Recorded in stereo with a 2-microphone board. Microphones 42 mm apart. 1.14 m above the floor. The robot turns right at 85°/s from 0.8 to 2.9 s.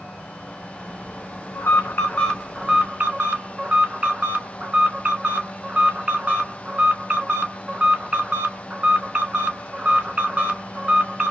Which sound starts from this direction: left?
An alarm, at 1.6 s.